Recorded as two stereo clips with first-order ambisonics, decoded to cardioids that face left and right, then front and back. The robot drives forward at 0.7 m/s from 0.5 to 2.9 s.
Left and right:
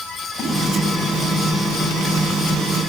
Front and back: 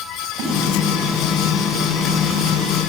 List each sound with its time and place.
0.2 s a splash: 165° left, 6.5 m